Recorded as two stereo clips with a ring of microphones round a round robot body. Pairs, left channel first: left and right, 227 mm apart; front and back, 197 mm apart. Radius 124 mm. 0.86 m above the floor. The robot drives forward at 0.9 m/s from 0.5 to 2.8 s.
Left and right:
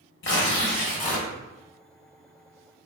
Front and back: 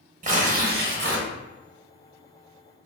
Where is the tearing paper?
130° left, 0.9 m; by 1.3 s 150° left, 1.4 m.